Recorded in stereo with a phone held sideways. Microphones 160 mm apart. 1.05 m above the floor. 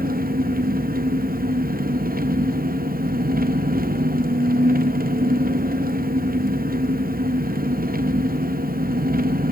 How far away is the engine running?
About 0.7 m.